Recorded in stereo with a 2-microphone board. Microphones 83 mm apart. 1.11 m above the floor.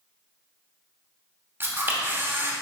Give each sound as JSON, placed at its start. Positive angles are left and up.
{"t": 1.6, "sound": "a camera shutter", "side_deg": -30, "distance_m": 1.0}